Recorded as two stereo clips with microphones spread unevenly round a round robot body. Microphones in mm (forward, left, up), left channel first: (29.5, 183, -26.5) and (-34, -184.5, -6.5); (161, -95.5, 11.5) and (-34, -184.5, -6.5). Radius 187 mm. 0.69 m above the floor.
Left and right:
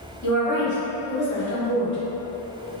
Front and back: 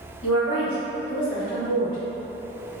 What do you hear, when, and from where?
0.2 s a woman speaking: 45° left, 1.3 m